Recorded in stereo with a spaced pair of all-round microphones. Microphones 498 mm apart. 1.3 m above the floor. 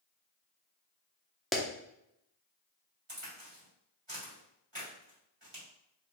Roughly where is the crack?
Right.